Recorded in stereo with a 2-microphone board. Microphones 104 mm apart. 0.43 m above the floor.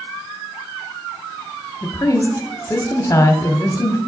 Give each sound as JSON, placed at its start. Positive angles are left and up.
{"t": 1.8, "sound": "a woman speaking", "side_deg": 25, "distance_m": 0.8}